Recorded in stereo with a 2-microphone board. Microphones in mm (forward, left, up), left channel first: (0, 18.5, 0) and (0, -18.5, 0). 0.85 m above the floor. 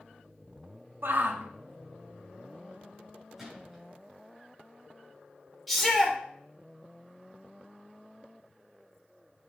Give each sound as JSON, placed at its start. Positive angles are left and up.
{"t": 1.0, "sound": "a shout", "side_deg": -70, "distance_m": 1.1}
{"t": 3.4, "sound": "a gunshot", "side_deg": -5, "distance_m": 6.5}
{"t": 5.7, "sound": "a shout", "side_deg": 5, "distance_m": 3.0}